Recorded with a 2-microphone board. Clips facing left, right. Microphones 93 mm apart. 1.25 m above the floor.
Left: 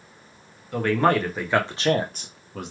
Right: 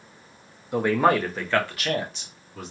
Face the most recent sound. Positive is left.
turn(degrees=65)  # may be behind; listen again after turning